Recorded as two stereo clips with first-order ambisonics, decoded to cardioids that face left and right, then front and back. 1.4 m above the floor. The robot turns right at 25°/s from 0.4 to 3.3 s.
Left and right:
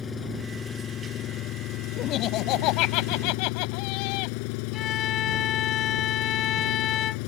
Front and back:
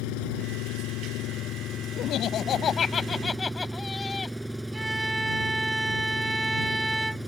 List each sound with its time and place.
0.0 s an engine running: 20° left; by 7.3 s 90° left
2.0 s laughter: 40° left; by 4.4 s 75° left
4.7 s a violin: 95° left